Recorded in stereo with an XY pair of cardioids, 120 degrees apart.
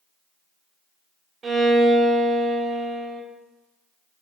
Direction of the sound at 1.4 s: 35° right.